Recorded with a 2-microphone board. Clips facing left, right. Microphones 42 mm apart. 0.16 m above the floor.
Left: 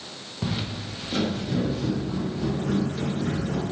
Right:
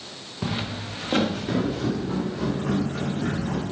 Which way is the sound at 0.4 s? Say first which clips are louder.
Right 1 dB; 15° right (ahead or behind).